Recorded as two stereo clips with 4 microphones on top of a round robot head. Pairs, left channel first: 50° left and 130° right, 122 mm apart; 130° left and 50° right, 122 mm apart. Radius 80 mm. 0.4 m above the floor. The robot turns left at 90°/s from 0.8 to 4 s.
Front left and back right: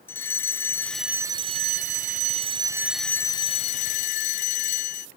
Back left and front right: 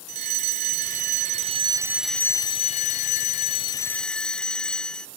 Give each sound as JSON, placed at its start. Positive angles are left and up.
{"t": 0.1, "sound": "a fire alarm", "azimuth_deg": -25}